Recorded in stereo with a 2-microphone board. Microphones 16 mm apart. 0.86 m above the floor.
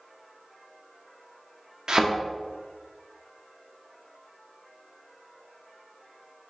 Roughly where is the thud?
Right.